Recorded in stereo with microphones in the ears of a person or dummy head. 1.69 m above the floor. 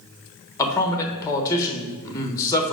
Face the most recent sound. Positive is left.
turn(degrees=20)  # may be behind; listen again after turning